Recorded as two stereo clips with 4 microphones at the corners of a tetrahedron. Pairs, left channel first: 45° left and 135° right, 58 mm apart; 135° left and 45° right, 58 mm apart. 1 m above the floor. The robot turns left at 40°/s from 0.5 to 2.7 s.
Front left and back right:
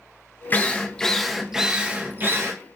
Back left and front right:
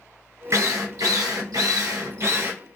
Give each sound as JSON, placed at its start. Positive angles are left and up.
{"t": 0.5, "sound": "a drill", "azimuth_deg": -15, "distance_m": 0.6}